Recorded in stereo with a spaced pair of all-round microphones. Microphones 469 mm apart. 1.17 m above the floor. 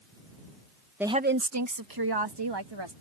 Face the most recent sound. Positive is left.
turn(degrees=-65)  # may be behind; listen again after turning